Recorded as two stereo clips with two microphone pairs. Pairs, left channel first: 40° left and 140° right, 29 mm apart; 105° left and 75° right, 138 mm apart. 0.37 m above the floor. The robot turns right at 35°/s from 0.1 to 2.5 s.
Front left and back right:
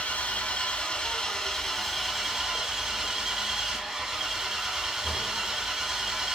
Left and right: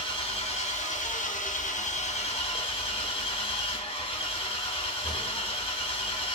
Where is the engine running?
60° left, 0.8 m; by 6.4 s 145° left, 0.8 m.